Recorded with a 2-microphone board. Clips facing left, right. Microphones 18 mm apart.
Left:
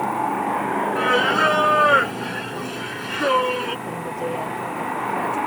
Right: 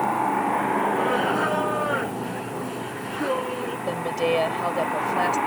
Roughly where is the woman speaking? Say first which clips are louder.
Right 3 dB; right.